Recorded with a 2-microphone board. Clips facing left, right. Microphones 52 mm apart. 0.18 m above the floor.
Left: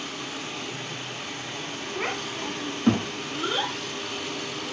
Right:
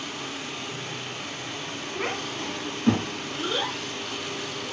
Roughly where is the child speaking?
Centre.